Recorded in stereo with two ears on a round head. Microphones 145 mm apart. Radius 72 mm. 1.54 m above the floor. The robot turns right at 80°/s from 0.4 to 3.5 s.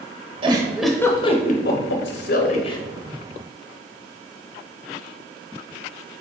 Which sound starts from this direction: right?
A giggle, at 0.4 s.